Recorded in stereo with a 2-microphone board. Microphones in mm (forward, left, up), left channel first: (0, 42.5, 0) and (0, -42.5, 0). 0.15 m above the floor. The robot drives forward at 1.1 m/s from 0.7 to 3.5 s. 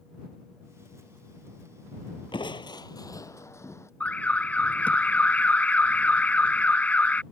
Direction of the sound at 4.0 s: 15° left (ahead or behind).